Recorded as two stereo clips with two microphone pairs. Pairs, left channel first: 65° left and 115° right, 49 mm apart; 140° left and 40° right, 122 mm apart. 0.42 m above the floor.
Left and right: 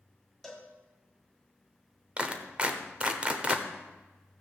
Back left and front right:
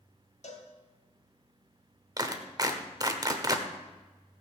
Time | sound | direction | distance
0.4 | a cowbell | 150° left | 1.8 m
2.2 | a clap | 70° right | 1.1 m